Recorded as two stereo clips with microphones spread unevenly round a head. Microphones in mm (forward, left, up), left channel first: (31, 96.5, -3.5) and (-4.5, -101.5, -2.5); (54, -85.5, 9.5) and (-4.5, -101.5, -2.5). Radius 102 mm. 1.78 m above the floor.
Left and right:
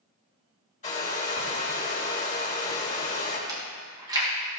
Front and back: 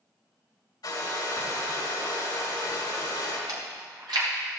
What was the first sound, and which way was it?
A hair dryer, 25° left.